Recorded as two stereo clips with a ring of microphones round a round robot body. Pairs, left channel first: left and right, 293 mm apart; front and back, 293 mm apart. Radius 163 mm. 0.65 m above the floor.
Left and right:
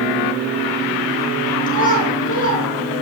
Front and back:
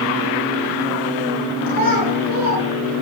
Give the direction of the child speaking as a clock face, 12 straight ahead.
7 o'clock.